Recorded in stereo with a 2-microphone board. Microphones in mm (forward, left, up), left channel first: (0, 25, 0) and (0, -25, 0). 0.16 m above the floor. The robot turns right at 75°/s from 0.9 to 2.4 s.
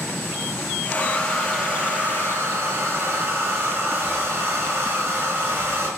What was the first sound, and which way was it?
A hair dryer, 140° left.